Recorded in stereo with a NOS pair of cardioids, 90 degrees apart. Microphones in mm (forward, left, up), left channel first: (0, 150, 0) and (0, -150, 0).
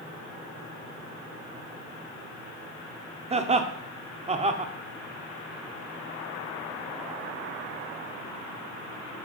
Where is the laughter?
20° right, 0.6 m.